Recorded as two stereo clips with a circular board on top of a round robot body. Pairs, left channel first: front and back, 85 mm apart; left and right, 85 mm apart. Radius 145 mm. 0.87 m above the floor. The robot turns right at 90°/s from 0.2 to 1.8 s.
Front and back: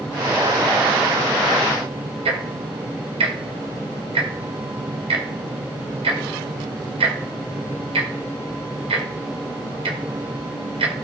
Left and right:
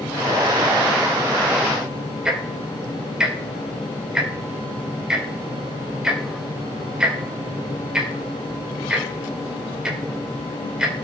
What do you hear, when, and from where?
2.2 s ticking: 170° right, 2 m